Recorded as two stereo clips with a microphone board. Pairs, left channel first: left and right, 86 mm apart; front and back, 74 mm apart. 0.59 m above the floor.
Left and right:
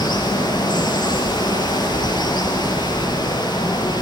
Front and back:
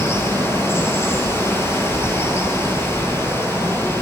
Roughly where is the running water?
Ahead left.